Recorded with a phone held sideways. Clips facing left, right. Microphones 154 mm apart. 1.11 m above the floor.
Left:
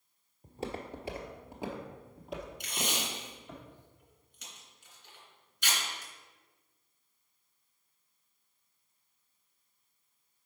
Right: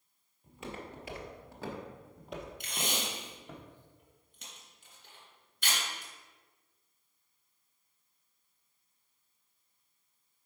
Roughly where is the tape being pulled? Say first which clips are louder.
Right 1 dB; right.